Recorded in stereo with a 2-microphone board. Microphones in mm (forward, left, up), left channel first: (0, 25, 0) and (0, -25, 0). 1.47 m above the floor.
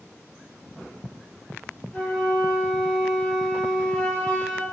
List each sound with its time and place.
1.9 s a flute: 15° left (ahead or behind), 1.7 m